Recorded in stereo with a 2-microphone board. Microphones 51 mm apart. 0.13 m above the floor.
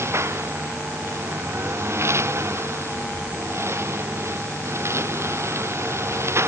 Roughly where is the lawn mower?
Right.